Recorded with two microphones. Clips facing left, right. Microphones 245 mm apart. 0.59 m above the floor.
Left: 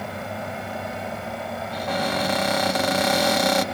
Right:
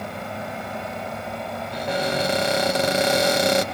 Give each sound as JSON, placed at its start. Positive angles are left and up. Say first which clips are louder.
{"t": 1.7, "sound": "a cupboard door", "louder": "right 2 dB", "side_deg": -25, "distance_m": 1.4}